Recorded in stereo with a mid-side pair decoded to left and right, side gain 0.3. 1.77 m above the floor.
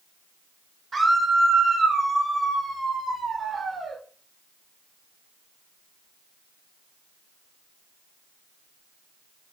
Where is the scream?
45° right, 5 m; by 4.0 s 60° right, 6.5 m.